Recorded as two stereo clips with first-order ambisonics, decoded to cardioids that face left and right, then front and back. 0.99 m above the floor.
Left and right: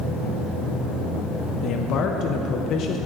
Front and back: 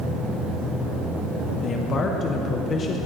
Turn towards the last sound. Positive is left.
turn(degrees=55)